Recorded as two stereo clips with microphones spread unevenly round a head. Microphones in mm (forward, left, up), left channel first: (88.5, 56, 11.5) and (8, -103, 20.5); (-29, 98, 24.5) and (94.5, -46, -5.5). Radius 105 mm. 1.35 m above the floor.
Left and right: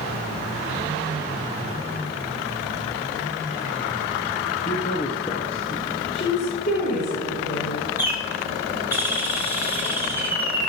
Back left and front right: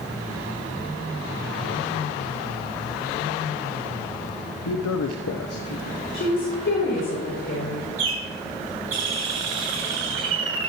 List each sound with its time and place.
4.7 s a man speaking: 125° left, 0.6 m
6.1 s a woman speaking: 110° left, 5 m
8.0 s a bird: 40° right, 3.5 m